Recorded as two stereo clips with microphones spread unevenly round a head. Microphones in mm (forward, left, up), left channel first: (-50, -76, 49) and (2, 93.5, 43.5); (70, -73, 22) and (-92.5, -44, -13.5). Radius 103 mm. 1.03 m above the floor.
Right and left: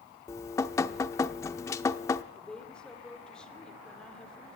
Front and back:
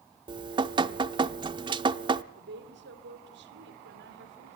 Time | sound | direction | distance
0.3 | dripping | 145° right | 0.6 m
2.3 | a woman speaking | 170° left | 2.5 m